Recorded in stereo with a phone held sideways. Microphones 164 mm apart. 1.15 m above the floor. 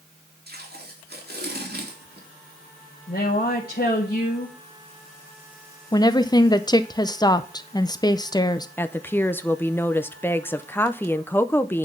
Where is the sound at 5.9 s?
25° left (ahead or behind), 0.6 m.